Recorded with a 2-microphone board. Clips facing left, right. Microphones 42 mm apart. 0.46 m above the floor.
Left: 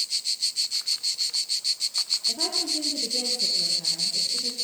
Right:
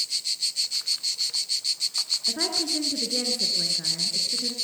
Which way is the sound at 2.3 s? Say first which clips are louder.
Right 4 dB; 60° right (ahead or behind).